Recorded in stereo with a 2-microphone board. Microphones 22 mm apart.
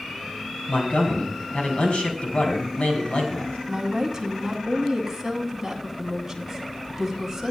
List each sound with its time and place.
0.7 s a man speaking: 65° left (ahead or behind), 3.5 m
3.7 s a woman speaking: 15° right (ahead or behind), 2.5 m